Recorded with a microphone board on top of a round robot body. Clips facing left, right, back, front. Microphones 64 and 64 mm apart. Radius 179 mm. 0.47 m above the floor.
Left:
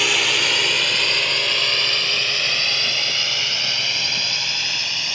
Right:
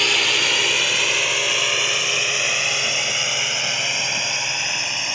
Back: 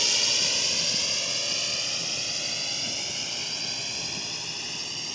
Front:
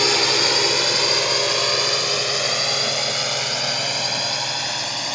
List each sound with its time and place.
0.0 s a drone: straight ahead; by 5.2 s 20° right